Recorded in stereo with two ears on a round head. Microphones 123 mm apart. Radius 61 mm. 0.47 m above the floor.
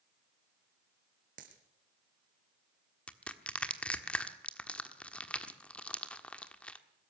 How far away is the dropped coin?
About 3 m.